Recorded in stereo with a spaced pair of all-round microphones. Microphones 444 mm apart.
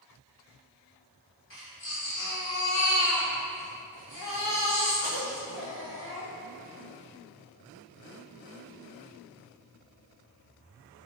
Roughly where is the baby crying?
Left.